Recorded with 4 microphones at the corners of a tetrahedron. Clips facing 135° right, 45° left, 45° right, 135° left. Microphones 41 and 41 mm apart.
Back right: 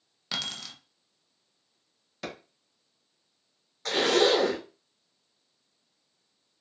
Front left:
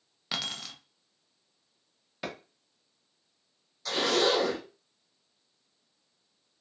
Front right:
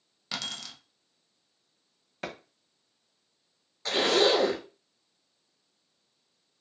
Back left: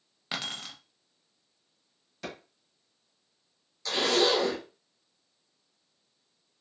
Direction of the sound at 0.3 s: 115° left.